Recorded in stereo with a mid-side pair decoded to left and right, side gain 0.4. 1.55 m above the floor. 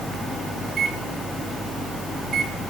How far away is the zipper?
I don't hear a zipper.